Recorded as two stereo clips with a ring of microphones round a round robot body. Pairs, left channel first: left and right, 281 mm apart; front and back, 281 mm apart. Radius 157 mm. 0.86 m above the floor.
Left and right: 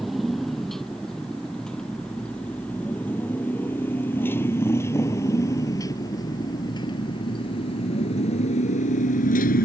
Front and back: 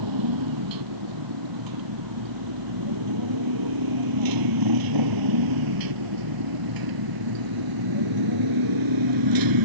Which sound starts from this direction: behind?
A motorcycle, at 0.0 s.